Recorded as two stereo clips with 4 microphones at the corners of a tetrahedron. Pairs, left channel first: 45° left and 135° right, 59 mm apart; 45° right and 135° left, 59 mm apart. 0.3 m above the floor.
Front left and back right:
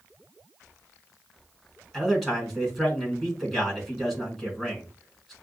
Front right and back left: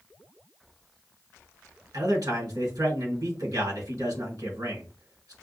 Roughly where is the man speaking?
Behind left.